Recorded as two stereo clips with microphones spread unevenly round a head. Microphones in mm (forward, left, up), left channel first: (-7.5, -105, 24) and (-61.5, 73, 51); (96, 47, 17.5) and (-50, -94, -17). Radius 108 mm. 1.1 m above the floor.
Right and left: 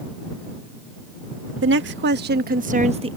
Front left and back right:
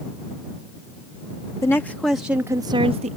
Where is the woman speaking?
125° left; by 3.2 s 175° left.